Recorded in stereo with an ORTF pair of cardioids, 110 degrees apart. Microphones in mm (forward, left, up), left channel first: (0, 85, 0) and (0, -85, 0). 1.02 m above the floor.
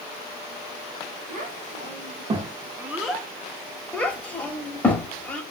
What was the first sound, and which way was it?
A child speaking, 55° right.